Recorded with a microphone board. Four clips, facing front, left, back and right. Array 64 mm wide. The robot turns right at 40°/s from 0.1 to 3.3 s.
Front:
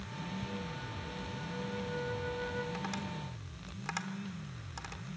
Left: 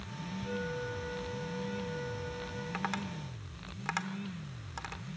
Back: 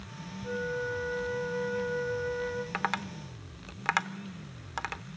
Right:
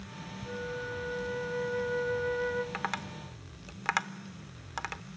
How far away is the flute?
About 3 m.